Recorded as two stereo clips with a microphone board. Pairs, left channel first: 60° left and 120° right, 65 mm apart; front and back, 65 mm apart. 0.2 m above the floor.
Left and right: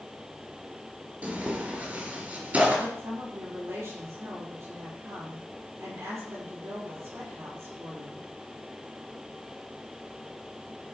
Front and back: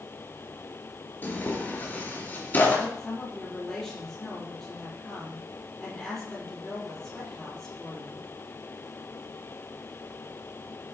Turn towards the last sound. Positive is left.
turn(degrees=-80)